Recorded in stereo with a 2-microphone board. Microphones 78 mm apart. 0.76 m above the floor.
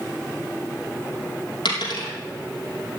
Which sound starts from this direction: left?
A dropped coin, at 1.6 s.